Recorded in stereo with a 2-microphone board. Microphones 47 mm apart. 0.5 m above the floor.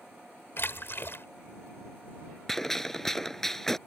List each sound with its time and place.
0.6 s a splash: 55° left (ahead or behind)
2.5 s a gunshot: 10° left (ahead or behind)